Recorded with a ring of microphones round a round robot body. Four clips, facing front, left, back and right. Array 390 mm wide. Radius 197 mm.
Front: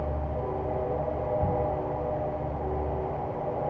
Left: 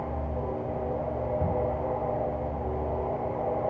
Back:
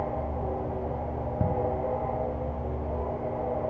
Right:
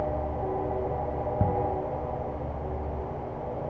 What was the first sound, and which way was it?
Ticking, 130° right.